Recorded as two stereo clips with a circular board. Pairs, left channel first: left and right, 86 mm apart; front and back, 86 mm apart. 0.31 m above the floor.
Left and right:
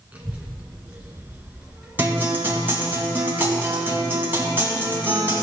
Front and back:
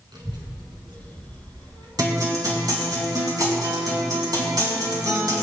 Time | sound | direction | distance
0.1 | a child speaking | 160° right | 2.5 m
2.0 | a guitar | 150° right | 3 m